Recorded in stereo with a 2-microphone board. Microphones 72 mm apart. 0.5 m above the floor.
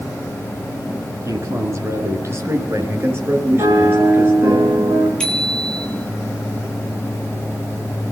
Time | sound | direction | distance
1.2 | a man speaking | 45° right (ahead or behind) | 7.5 m
3.6 | a piano | 65° right (ahead or behind) | 7.5 m
5.2 | a bicycle bell | 15° left (ahead or behind) | 7.5 m